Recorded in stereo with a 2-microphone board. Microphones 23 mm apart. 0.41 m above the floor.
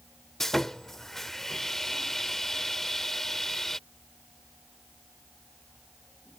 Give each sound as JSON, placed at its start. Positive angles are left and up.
{"t": 0.4, "sound": "sawing", "side_deg": 15}